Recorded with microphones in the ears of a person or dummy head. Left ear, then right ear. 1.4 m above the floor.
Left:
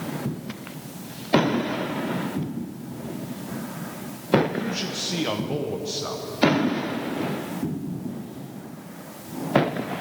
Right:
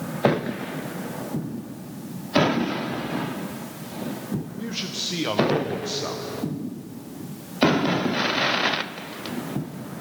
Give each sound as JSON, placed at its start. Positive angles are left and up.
{"t": 4.6, "sound": "a man speaking", "side_deg": 0, "distance_m": 0.8}